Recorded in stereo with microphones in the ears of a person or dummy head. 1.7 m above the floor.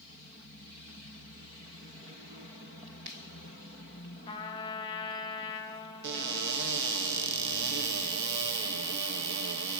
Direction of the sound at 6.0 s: 65° right (ahead or behind).